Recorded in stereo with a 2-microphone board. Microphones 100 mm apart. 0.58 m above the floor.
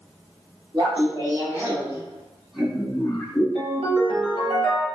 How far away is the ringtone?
About 1.0 m.